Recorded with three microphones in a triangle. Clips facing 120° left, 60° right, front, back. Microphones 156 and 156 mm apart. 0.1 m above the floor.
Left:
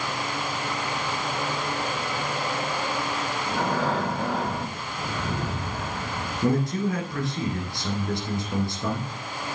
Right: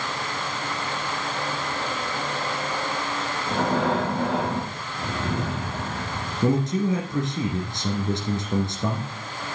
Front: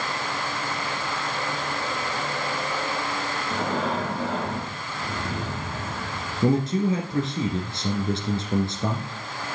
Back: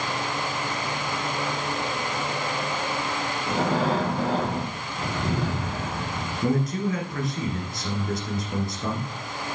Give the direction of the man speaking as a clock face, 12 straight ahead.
1 o'clock.